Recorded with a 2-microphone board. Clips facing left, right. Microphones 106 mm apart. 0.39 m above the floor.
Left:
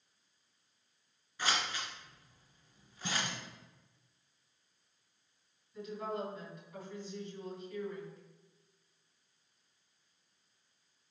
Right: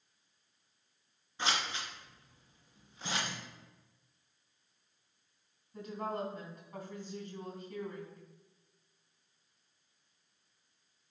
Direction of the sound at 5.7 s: 40° right (ahead or behind).